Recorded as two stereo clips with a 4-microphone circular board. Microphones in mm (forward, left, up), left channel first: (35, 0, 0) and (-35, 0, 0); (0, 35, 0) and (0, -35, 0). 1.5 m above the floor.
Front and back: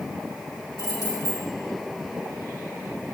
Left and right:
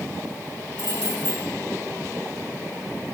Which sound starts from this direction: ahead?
Keys jangling, at 0.8 s.